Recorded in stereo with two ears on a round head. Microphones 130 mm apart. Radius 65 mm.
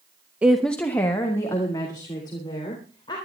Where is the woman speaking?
10° right (ahead or behind), 0.7 m; by 3.2 s 35° left (ahead or behind), 4 m.